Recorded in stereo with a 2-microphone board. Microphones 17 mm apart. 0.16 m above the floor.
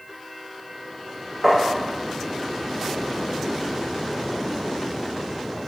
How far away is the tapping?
About 1.5 m.